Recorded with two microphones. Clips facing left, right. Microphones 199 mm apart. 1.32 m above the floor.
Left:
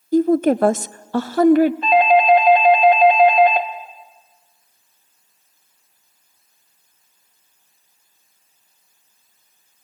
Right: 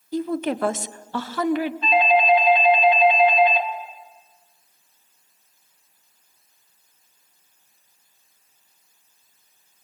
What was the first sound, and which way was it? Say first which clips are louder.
A woman speaking: left 10 dB; 50° left (ahead or behind).